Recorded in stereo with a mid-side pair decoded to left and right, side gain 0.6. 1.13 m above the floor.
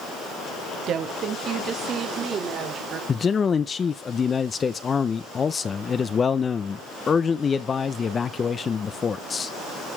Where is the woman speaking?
50° right, 1.4 m; by 3.0 s 45° right, 3 m.